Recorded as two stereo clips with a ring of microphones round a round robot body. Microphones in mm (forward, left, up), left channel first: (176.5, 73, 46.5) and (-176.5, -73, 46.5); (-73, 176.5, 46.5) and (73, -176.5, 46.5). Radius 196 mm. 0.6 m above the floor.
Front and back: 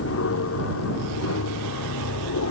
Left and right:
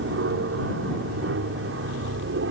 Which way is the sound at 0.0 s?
20° right.